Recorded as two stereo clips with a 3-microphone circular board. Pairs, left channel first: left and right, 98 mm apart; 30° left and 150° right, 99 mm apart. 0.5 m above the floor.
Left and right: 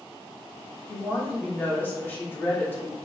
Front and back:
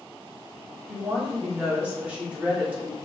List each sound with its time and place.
0.9 s a woman speaking: 145° left, 0.8 m